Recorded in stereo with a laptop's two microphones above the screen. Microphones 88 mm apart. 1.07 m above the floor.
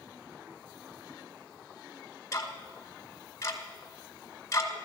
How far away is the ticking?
About 1.1 m.